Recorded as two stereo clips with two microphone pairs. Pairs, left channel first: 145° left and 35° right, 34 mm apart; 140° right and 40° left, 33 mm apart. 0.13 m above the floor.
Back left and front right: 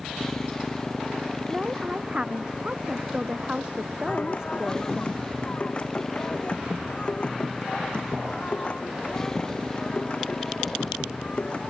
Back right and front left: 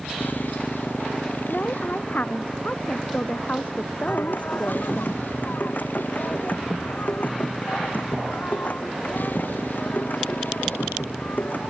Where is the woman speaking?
100° right.